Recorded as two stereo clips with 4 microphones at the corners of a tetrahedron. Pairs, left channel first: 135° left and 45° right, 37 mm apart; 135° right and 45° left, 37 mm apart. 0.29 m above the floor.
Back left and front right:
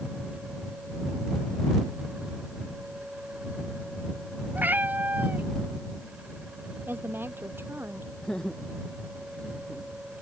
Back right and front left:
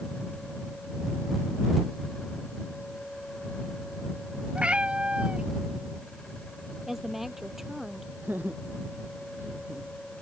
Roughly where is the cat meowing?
Ahead.